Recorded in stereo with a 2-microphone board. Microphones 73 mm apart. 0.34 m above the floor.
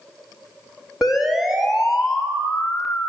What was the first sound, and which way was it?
A siren, 5° right (ahead or behind).